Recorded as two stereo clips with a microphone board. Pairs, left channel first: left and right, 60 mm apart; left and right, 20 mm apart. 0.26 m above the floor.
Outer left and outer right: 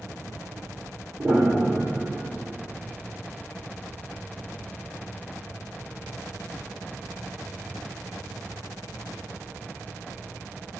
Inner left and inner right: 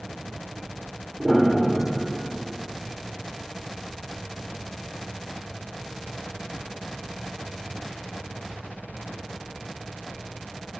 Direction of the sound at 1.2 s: 35° right (ahead or behind).